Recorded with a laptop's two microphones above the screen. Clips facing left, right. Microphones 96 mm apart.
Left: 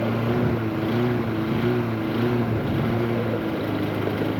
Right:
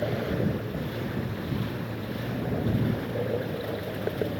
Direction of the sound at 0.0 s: 85° left.